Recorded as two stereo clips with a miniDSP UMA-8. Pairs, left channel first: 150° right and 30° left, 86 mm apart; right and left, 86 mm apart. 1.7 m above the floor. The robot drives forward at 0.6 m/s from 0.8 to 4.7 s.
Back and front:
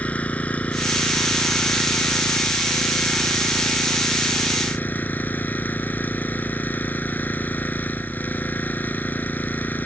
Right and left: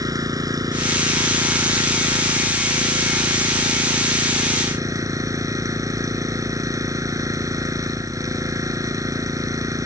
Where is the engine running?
135° left; by 9.9 s 140° left.